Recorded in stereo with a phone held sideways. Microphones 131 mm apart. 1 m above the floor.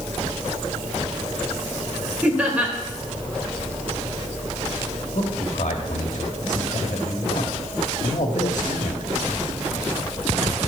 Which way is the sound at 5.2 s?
65° left (ahead or behind).